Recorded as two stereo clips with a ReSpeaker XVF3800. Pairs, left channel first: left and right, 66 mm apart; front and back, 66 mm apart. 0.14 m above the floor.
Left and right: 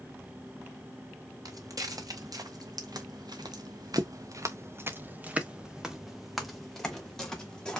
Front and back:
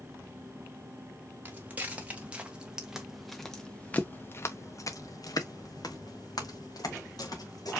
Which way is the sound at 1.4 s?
120° right.